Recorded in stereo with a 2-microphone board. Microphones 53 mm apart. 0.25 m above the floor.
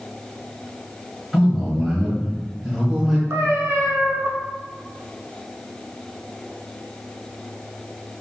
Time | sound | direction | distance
1.3 | a man speaking | 5° right (ahead or behind) | 1.2 m
3.3 | a cat meowing | 70° right (ahead or behind) | 0.7 m